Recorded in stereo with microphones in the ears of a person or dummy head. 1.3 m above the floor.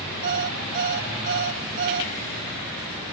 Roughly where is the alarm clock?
Right.